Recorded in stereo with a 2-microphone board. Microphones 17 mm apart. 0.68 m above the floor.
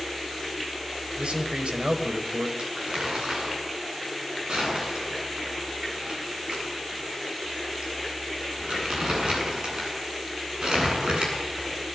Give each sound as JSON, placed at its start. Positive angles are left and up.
{"t": 1.2, "sound": "a man speaking", "side_deg": -75, "distance_m": 3.5}
{"t": 2.6, "sound": "crumpling", "side_deg": -55, "distance_m": 9.5}